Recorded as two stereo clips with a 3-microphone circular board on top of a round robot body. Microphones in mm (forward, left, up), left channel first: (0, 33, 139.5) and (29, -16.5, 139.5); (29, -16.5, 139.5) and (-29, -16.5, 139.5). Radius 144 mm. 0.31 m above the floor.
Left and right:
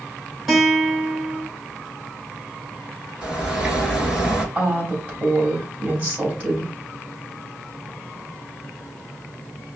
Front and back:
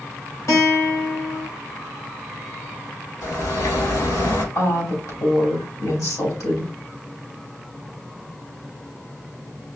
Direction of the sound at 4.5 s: Straight ahead.